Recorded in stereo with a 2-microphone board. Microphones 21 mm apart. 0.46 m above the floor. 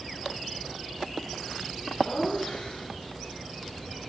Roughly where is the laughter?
Left.